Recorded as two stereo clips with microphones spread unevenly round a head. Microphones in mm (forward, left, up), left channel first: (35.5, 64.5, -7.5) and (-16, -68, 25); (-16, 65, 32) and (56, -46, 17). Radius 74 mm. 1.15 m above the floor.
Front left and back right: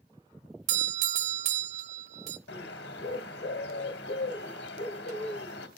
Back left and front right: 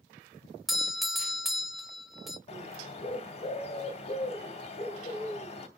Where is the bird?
85° left, 2 m.